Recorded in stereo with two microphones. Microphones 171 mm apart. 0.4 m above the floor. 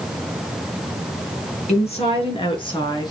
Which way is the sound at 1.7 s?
40° left (ahead or behind).